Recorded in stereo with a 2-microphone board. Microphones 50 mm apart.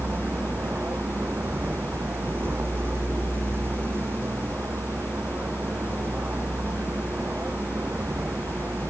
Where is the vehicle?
50° right (ahead or behind).